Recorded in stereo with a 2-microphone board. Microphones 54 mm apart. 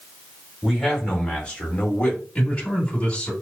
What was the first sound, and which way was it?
A man speaking, 5° left (ahead or behind).